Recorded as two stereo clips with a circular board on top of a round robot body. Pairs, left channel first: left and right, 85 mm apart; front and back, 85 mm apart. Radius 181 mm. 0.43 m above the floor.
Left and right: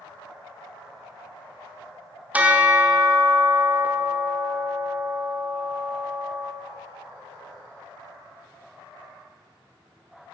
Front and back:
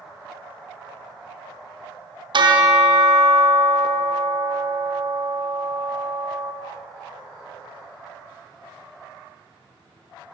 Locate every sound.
2.3 s a bell: 160° right, 1.1 m